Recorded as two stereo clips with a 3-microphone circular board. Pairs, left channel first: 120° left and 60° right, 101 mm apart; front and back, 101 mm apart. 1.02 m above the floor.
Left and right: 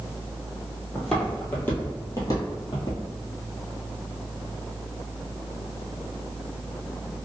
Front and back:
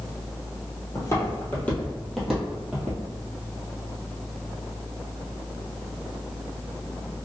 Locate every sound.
0.9 s footsteps: 30° left, 1.3 m; by 3.0 s 115° left, 1.5 m